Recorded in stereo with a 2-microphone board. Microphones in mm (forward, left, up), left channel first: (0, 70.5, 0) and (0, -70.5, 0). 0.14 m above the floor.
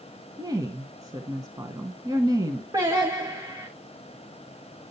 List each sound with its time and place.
0.4 s a woman speaking: 25° right (ahead or behind), 1.1 m
2.7 s singing: 25° right (ahead or behind), 3.5 m